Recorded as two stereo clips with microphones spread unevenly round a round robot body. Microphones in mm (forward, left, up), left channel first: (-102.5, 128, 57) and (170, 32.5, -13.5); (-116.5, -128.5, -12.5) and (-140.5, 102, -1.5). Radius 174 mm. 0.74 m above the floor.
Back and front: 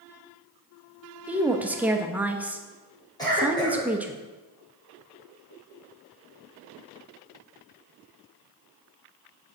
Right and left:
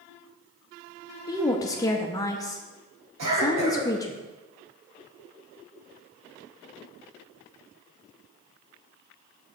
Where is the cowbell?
No cowbell in this recording.